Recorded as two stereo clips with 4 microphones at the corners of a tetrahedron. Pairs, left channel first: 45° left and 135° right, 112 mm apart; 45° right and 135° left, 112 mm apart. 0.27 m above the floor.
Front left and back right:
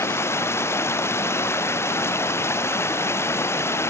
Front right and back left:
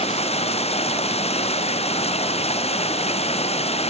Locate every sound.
0.0 s running water: 25° right